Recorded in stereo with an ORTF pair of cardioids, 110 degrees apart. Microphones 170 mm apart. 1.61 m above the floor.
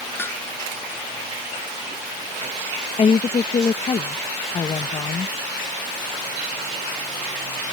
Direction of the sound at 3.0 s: 30° left.